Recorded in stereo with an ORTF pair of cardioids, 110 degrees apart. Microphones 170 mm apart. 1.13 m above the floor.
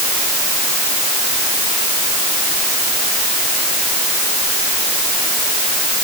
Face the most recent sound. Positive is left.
No sound to turn to.